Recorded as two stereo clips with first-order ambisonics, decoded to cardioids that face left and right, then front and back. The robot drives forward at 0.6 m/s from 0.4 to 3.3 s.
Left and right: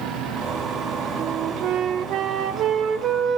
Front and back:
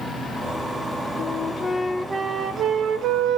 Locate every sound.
1.2 s a flute: 45° right, 0.8 m; by 3.4 s 150° right, 1.1 m